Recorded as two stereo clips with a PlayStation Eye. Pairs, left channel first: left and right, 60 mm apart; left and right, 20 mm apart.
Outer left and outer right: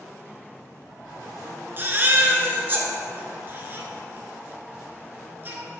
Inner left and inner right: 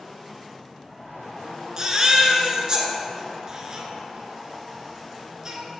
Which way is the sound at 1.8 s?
35° right (ahead or behind).